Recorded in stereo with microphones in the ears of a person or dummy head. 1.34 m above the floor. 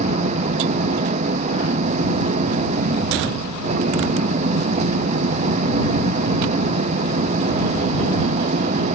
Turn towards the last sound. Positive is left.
turn(degrees=-40)  # may be behind; listen again after turning